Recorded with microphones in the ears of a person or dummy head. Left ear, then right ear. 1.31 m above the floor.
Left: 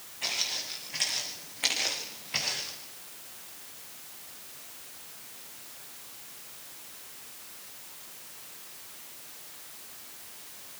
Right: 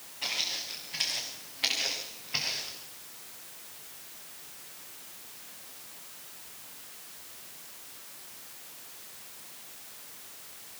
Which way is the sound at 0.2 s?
5° left (ahead or behind).